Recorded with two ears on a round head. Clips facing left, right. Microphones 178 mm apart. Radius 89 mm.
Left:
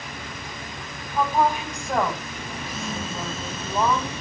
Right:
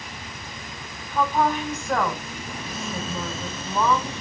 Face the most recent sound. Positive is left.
turn(degrees=15)  # may be behind; listen again after turning